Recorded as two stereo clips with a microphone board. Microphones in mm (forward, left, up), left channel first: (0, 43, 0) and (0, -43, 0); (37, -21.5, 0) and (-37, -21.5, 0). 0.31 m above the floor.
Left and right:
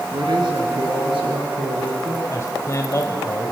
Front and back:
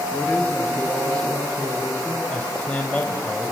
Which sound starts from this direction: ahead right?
A man speaking, at 0.1 s.